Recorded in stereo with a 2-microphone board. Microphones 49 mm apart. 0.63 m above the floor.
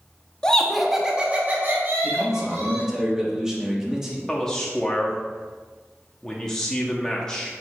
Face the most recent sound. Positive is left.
turn(degrees=15)  # may be behind; listen again after turning